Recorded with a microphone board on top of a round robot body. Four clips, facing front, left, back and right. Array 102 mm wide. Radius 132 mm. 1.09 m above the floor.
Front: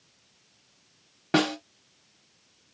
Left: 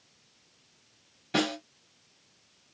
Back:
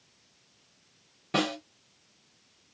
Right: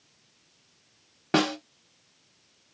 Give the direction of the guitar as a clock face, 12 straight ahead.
I don't hear a guitar.